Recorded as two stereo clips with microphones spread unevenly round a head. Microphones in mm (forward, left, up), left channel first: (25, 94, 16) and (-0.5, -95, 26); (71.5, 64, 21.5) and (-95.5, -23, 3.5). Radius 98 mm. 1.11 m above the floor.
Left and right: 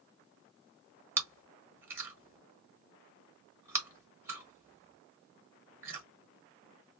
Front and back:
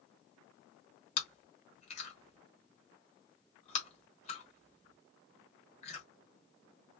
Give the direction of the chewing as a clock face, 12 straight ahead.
1 o'clock.